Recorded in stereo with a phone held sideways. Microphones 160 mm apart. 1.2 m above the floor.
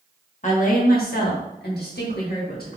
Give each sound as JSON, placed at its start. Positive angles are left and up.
{"t": 0.4, "sound": "a woman speaking", "side_deg": 50, "distance_m": 1.1}